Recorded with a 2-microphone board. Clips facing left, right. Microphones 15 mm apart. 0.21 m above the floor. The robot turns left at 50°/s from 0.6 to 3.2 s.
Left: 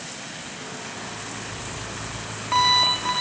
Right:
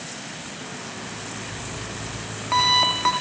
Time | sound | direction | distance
1.0 | an alarm clock | 65° left | 6.5 m